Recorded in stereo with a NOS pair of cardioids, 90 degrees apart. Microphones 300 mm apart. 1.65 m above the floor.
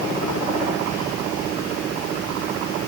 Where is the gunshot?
I don't hear a gunshot.